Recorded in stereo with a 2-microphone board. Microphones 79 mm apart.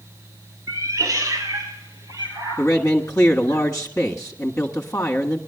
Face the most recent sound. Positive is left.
turn(degrees=30)  # may be behind; listen again after turning